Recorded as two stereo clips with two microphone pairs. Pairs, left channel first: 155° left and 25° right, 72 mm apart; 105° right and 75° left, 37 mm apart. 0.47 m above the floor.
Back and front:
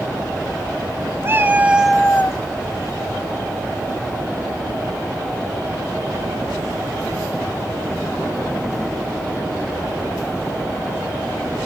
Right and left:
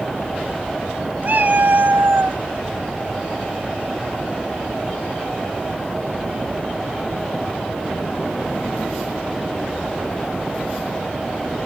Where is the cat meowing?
30° left, 1.0 m; by 2.4 s 115° left, 0.5 m.